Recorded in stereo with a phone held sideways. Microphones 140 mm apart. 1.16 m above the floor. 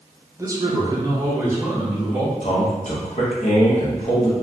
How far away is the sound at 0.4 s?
About 0.5 m.